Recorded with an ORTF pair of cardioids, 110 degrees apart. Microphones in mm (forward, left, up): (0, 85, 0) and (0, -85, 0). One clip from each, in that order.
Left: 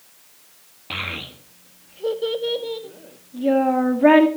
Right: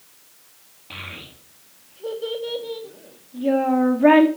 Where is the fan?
I don't hear a fan.